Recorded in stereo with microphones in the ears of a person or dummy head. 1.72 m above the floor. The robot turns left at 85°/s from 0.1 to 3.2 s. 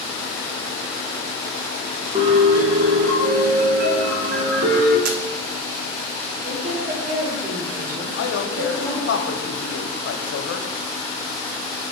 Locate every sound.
2.1 s a piano: 30° right, 1.3 m; by 5.0 s 120° right, 1.3 m
5.0 s a camera shutter: 60° right (ahead or behind), 0.7 m
6.4 s a woman speaking: 50° right (ahead or behind), 3.5 m
8.2 s a man speaking: 75° left (ahead or behind), 1.0 m